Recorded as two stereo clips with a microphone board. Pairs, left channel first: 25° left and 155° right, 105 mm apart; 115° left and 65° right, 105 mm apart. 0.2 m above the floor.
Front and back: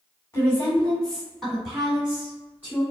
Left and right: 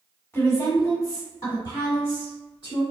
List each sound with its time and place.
0.3 s a woman speaking: 65° left, 1.7 m; by 2.8 s 135° left, 2.5 m